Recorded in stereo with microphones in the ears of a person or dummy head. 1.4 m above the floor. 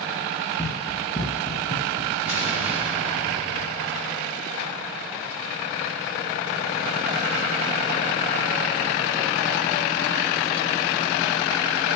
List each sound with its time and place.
0.6 s running footsteps: 10° left (ahead or behind), 1.7 m; by 2.2 s 25° left (ahead or behind), 1.6 m
2.3 s an explosion: 10° right (ahead or behind), 5.5 m